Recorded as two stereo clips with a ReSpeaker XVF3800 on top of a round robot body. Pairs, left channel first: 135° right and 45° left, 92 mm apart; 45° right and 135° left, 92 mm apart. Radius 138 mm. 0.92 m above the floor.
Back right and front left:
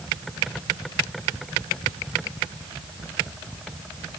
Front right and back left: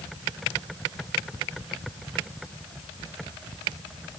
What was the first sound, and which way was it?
Only background noise.